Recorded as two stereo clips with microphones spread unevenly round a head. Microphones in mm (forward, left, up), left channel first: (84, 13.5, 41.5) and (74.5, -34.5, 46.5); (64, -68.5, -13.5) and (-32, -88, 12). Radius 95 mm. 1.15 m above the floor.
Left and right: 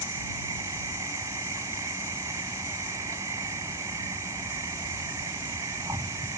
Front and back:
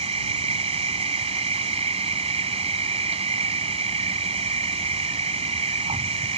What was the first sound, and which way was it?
An insect, 160° right.